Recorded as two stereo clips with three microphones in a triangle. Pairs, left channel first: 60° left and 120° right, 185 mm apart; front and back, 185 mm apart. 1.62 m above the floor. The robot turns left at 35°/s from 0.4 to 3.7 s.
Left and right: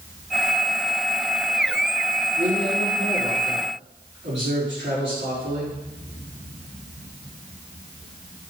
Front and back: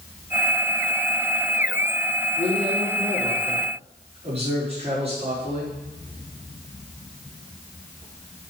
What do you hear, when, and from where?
2.4 s a man speaking: 80° right, 5 m; by 5.8 s 125° right, 5 m